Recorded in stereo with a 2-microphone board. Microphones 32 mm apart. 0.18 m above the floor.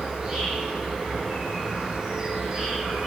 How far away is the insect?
About 1.1 m.